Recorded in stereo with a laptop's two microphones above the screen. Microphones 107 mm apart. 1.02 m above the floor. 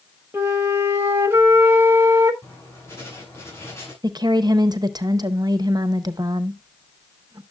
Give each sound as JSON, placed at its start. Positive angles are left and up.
{"t": 0.3, "sound": "a flute", "side_deg": -20, "distance_m": 1.3}
{"t": 2.4, "sound": "writing", "side_deg": 25, "distance_m": 7.5}
{"t": 4.0, "sound": "a woman speaking", "side_deg": -40, "distance_m": 0.7}